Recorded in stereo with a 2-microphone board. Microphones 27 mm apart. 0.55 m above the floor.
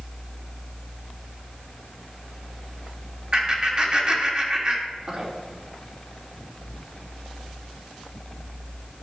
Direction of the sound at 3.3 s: 35° right (ahead or behind).